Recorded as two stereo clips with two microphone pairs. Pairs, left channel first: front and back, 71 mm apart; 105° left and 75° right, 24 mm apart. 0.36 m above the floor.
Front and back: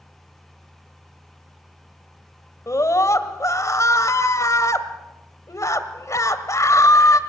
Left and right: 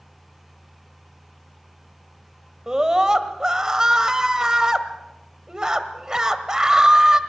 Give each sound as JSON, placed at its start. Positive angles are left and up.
{"t": 2.7, "sound": "a scream", "azimuth_deg": -15, "distance_m": 1.7}